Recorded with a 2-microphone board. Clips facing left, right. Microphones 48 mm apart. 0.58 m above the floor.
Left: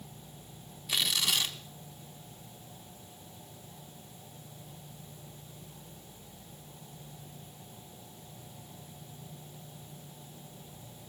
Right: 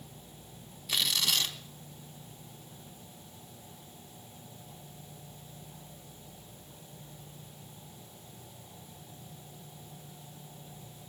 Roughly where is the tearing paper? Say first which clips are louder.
Even; centre.